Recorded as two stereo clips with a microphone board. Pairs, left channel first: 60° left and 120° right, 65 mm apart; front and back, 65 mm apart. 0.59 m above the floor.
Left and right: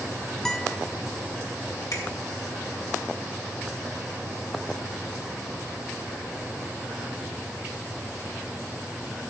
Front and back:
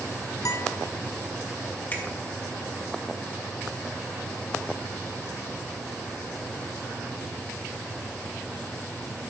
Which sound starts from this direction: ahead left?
A finger snap, at 1.9 s.